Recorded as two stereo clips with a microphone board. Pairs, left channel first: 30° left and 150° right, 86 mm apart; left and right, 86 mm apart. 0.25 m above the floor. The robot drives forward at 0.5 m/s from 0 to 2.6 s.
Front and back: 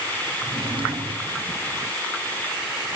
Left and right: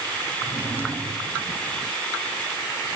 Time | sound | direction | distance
0.4 | a drawer | 150° right | 4 m